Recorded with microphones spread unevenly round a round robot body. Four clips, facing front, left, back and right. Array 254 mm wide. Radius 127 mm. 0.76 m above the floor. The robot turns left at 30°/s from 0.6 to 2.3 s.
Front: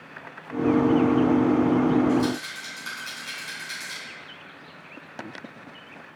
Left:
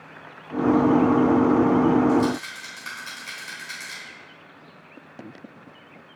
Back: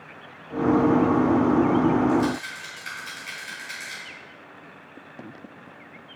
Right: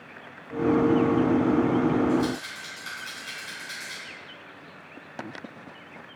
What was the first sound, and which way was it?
A rattle, 90° left.